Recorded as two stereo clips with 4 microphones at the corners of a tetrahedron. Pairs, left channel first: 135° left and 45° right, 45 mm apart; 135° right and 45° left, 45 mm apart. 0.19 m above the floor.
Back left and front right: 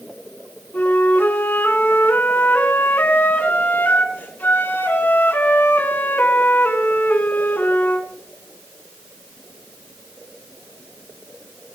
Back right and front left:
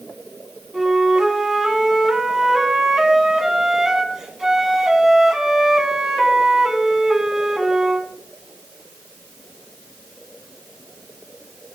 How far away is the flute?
About 2 m.